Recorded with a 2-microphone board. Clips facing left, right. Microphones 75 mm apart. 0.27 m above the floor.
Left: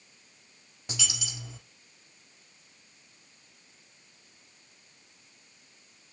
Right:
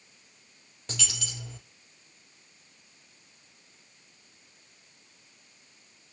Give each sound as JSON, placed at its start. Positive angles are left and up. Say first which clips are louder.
{"t": 0.9, "sound": "a dropped coin", "louder": "even", "side_deg": 10, "distance_m": 4.0}